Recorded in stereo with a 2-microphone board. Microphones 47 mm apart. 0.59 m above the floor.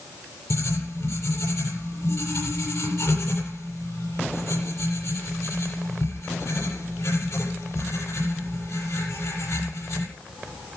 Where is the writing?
85° left, 8 m.